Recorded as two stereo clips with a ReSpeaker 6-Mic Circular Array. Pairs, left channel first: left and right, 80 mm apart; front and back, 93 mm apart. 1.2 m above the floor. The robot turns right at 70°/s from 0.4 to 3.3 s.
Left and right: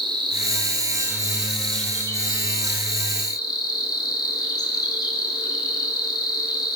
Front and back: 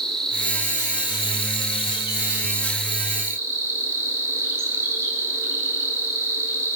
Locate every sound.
0.0 s an insect: 85° right, 3.5 m; by 6.8 s 120° left, 3.5 m